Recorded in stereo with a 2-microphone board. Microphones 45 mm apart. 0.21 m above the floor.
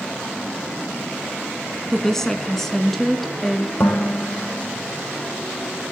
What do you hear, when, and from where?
1.9 s a woman speaking: 10° left (ahead or behind), 2.5 m; by 3.7 s 5° left (ahead or behind), 3.5 m
3.8 s dishes clattering: 60° left (ahead or behind), 7 m